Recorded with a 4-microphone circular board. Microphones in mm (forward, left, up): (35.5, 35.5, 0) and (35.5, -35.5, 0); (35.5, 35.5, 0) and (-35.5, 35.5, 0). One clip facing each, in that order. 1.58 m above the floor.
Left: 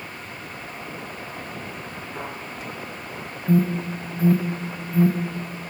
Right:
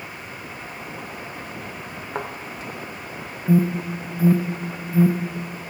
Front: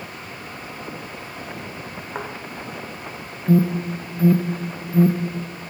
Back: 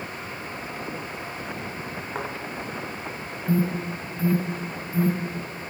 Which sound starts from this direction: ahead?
An alarm, at 3.5 s.